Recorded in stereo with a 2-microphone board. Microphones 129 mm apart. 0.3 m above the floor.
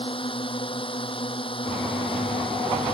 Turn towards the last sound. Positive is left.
turn(degrees=40)  # may be behind; listen again after turning